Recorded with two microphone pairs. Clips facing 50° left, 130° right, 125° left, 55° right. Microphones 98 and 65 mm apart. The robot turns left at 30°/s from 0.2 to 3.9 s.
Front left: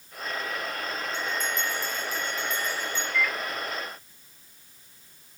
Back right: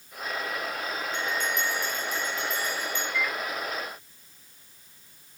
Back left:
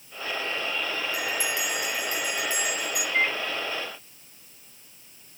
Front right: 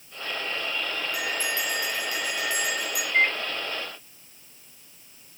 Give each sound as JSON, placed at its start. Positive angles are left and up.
{"t": 1.1, "sound": "a bell", "azimuth_deg": -145, "distance_m": 4.5}
{"t": 3.1, "sound": "a microwave", "azimuth_deg": -80, "distance_m": 0.8}